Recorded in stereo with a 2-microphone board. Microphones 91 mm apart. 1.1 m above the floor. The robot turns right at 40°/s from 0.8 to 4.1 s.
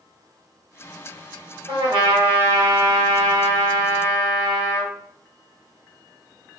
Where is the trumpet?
115° right, 1.1 m; by 4.9 s 20° right, 1.1 m.